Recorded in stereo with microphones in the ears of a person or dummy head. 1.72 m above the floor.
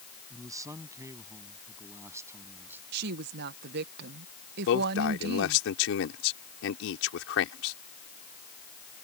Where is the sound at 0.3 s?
15° right (ahead or behind); by 2.8 s 10° right (ahead or behind).